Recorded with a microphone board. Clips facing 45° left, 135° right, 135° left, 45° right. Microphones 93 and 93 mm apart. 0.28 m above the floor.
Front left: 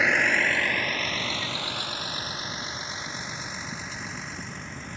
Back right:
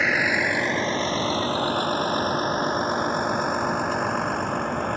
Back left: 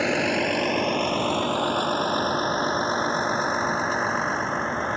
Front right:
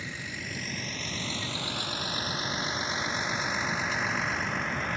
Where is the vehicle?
135° left; by 5.0 s 165° right.